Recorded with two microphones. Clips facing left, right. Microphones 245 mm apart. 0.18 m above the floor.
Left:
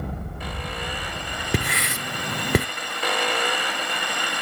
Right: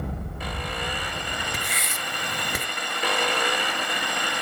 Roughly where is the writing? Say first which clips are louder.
Left 8 dB; left.